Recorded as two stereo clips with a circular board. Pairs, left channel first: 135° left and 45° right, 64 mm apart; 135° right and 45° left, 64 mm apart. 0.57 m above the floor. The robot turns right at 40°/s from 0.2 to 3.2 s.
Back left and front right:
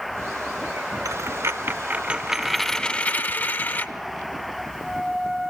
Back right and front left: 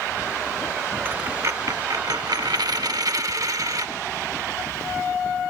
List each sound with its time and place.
1.1 s a dropped coin: 15° right, 0.6 m; by 3.9 s 75° left, 0.6 m